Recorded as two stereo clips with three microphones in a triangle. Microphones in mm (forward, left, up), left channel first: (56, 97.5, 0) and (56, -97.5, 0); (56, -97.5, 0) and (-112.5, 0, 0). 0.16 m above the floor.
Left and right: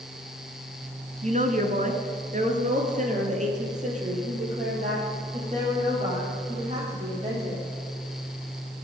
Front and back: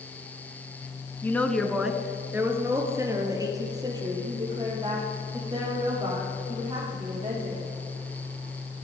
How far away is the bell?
I don't hear a bell.